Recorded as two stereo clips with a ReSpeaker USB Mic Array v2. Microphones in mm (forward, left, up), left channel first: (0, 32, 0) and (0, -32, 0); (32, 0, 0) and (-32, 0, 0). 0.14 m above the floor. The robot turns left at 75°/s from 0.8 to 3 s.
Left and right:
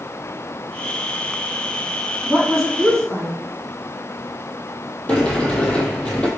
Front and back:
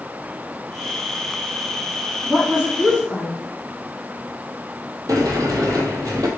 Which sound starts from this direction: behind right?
A woman speaking, at 2.2 s.